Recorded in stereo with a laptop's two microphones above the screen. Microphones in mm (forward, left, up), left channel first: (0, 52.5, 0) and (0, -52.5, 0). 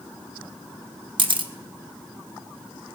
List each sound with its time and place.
1.2 s a camera shutter: 55° right (ahead or behind), 0.9 m